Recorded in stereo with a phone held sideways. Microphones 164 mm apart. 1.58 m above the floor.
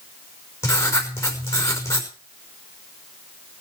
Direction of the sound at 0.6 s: 15° left (ahead or behind).